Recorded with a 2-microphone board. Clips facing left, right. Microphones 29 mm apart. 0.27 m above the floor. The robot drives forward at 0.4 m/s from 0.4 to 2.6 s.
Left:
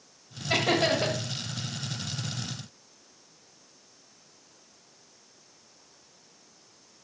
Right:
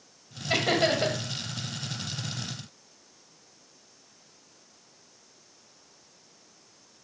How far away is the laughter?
About 1.4 m.